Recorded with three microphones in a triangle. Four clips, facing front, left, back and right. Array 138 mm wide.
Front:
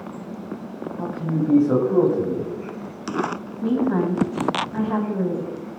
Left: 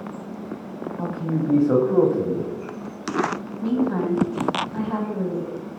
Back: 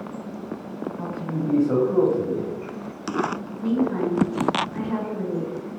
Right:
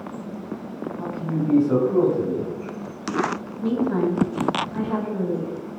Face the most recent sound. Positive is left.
turn(degrees=5)